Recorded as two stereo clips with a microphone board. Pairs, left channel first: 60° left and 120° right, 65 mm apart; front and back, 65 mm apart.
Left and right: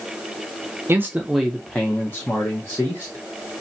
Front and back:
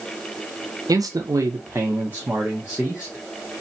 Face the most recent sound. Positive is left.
turn(degrees=100)